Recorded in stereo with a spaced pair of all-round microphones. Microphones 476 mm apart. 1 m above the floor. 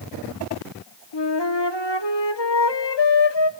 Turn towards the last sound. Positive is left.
turn(degrees=65)  # may be behind; listen again after turning